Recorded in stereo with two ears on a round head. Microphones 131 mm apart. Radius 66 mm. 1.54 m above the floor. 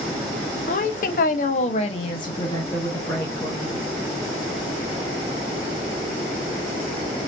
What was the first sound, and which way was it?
A woman speaking, 50° left (ahead or behind).